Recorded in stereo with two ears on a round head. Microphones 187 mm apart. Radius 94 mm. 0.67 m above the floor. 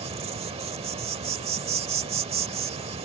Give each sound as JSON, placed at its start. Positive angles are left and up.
{"t": 0.0, "sound": "an insect", "side_deg": -30}